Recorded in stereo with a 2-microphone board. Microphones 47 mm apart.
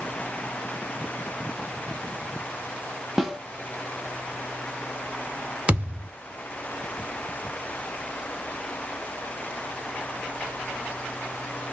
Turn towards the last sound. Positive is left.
turn(degrees=-25)  # may be behind; listen again after turning